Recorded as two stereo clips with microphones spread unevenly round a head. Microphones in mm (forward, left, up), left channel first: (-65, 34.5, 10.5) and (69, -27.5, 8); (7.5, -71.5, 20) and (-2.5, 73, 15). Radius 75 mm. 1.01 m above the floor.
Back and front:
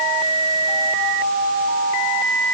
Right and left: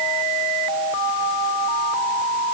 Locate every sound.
Only background noise.